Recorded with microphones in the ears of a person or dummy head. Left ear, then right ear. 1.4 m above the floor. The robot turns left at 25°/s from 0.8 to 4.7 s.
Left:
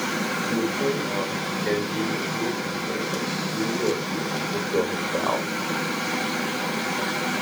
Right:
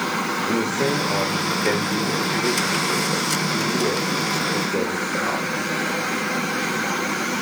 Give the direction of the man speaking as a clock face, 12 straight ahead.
4 o'clock.